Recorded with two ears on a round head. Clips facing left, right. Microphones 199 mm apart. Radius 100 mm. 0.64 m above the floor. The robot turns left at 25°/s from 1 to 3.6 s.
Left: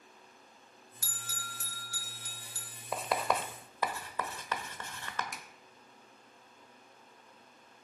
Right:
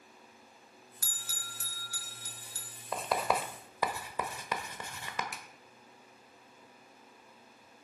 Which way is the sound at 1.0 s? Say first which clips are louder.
Left 5 dB; 50° right (ahead or behind).